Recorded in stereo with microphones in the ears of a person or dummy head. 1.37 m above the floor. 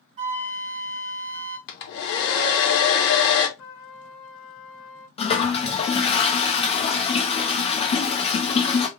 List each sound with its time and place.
0.2 s a flute: 40° right (ahead or behind), 1.6 m
1.7 s a hair dryer: 65° left (ahead or behind), 1.1 m
3.6 s a trumpet: 65° left (ahead or behind), 1.3 m
5.2 s a toilet flushing: 25° left (ahead or behind), 0.6 m